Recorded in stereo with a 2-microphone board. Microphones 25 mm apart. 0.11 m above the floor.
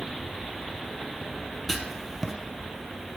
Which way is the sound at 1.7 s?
Centre (ahead or behind).